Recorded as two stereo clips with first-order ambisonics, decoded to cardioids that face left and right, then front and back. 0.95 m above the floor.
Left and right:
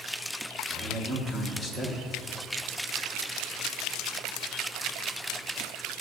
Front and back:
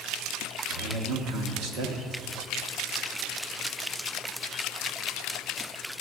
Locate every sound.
0.7 s a man speaking: 165° right, 1.2 m